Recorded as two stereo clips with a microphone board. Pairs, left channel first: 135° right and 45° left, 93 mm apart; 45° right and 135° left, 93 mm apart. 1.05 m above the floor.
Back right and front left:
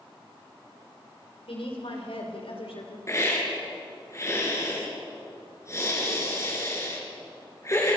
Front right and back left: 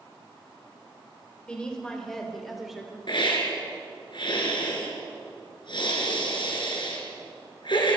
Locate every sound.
1.5 s a woman speaking: 125° right, 5.5 m; by 3.0 s 140° right, 4 m
3.1 s a hiss: 75° right, 4.5 m